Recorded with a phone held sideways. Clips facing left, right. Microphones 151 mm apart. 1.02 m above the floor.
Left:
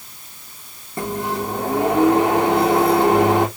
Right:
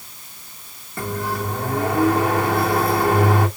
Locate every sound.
1.0 s a microwave: 20° left (ahead or behind), 1.7 m